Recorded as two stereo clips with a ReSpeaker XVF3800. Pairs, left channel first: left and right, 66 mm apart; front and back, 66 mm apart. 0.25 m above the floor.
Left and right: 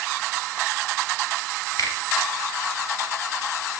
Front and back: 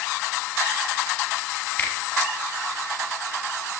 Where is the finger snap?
65° left, 3 m.